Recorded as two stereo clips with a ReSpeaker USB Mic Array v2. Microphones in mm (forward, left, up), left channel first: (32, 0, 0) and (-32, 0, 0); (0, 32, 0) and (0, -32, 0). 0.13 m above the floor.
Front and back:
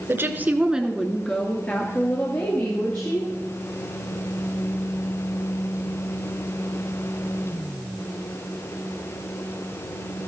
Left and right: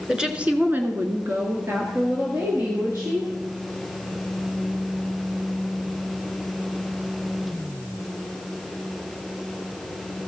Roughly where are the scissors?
No scissors in this recording.